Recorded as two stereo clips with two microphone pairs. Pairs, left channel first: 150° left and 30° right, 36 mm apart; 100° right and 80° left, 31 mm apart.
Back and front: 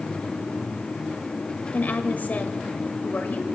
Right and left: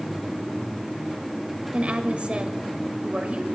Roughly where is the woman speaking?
Behind left.